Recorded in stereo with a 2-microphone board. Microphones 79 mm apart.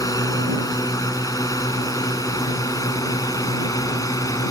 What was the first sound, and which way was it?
A drone, 50° left (ahead or behind).